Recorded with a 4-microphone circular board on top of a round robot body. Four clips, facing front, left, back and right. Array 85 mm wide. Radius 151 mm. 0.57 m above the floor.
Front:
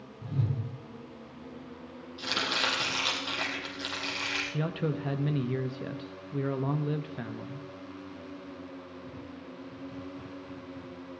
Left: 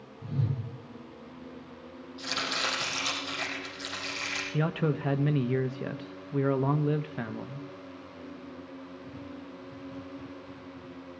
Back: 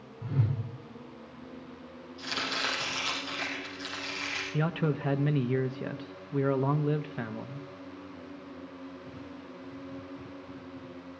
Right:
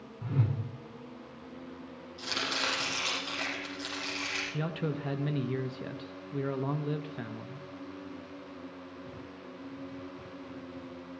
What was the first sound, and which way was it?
A whoosh, 120° right.